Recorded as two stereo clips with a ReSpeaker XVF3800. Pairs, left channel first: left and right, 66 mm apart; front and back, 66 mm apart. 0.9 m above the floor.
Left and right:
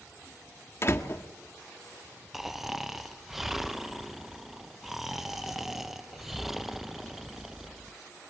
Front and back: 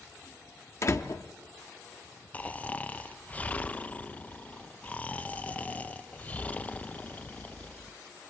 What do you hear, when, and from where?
0.8 s a door slam: 45° left, 1.5 m
2.3 s snoring: 5° right, 0.6 m